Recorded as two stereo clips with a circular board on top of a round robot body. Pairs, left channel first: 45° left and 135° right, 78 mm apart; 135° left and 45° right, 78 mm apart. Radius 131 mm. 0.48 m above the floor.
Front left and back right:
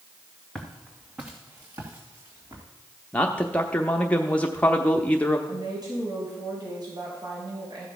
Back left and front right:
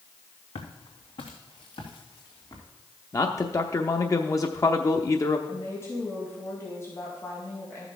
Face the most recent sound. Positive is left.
turn(degrees=-170)